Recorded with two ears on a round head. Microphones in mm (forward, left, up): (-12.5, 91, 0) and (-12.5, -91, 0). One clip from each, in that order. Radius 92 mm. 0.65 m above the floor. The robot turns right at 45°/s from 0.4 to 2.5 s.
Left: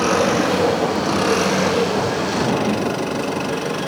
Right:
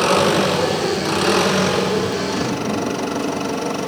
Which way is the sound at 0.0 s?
80° right.